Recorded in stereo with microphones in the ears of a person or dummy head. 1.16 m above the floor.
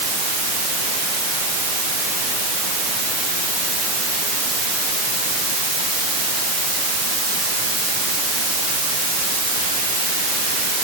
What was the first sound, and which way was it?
Only background noise.